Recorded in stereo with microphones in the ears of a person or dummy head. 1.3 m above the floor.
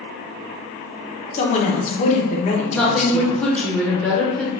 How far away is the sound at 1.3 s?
About 0.7 m.